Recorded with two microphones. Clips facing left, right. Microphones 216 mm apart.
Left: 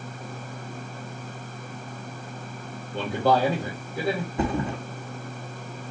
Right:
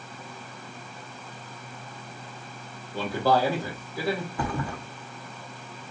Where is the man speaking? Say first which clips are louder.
Left 1 dB; 20° left (ahead or behind), 3 m.